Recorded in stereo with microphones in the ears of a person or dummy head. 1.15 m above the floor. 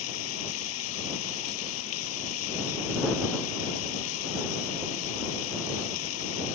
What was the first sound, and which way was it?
Running water, 80° left.